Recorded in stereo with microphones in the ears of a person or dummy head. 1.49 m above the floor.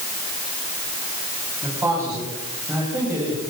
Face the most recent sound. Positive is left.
turn(degrees=-10)  # may be behind; listen again after turning